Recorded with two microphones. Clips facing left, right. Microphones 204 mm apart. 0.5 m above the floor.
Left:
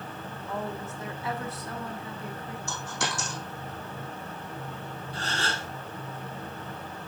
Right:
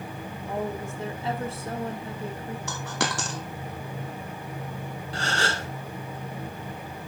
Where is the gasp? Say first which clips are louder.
Right 5 dB; 80° right, 1.3 m.